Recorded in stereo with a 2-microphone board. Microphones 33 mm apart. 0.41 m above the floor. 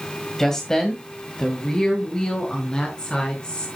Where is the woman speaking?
15° left (ahead or behind), 2 m; by 3.7 s 30° left (ahead or behind), 5 m.